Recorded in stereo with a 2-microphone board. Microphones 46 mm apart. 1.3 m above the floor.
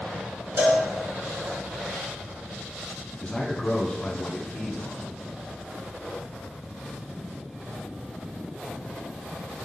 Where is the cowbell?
55° right (ahead or behind), 2.5 m.